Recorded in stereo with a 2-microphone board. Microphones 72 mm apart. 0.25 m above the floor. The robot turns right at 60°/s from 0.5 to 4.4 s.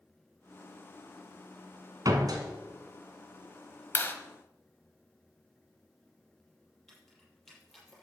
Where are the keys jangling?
5° left (ahead or behind), 6 m.